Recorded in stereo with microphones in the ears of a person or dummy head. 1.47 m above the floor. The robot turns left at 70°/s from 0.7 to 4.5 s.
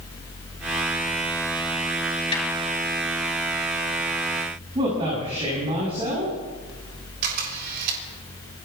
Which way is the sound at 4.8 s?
25° right (ahead or behind).